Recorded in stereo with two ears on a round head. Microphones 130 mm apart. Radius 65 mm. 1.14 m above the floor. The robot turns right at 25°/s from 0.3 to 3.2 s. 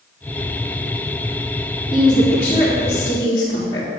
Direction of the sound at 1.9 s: 10° right.